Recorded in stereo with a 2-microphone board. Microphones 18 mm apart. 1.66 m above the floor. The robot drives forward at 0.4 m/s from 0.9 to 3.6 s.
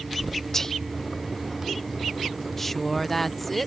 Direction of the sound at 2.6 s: 10° left (ahead or behind).